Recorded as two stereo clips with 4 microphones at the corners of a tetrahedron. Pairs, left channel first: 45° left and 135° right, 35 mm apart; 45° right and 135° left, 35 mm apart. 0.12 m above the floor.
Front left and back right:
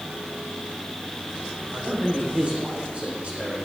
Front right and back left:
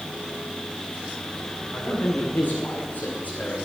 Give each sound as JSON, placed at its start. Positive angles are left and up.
{"t": 1.7, "sound": "a man speaking", "azimuth_deg": -80, "distance_m": 8.5}